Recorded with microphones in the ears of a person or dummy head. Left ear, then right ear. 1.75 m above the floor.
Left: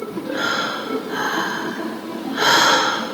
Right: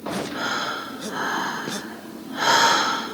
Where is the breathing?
10° left (ahead or behind), 1.0 m.